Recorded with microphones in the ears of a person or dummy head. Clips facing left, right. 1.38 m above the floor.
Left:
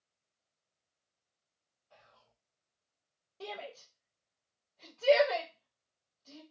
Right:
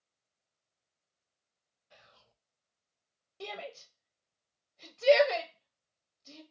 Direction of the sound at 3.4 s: 20° right (ahead or behind).